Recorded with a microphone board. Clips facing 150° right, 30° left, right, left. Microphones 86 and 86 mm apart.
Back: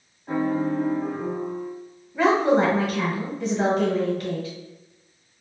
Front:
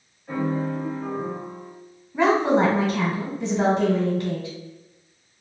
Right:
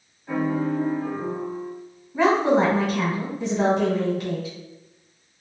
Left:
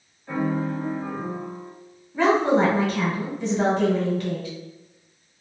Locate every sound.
0.3 s a piano: 175° right, 1.3 m
2.1 s a woman speaking: 25° right, 1.8 m